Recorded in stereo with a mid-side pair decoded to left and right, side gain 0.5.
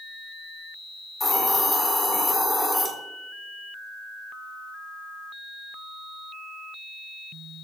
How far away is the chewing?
I don't hear chewing.